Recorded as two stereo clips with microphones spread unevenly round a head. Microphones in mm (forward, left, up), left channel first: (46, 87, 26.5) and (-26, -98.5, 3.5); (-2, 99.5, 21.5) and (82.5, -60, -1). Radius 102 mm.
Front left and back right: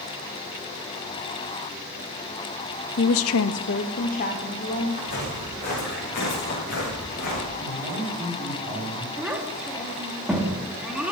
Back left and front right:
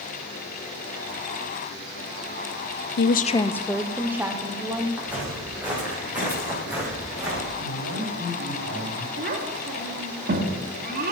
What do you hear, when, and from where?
3.0 s a woman speaking: 105° left, 0.5 m; by 4.9 s 10° left, 2.0 m
5.0 s footsteps: 25° left, 9 m; by 7.5 s 20° left, 11 m
7.6 s a man speaking: 50° right, 4.5 m
9.2 s a child speaking: 25° right, 2.5 m